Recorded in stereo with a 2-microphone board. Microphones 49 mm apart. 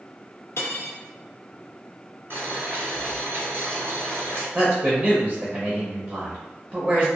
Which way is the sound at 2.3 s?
55° right (ahead or behind).